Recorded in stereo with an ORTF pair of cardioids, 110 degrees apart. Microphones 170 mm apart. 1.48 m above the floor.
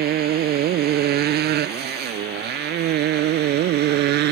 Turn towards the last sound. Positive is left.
turn(degrees=-75)